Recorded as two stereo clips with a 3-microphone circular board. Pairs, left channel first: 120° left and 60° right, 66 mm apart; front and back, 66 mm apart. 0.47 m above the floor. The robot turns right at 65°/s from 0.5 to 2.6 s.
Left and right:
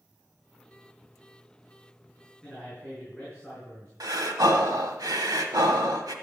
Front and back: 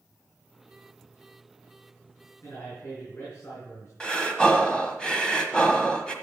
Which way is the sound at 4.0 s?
75° right.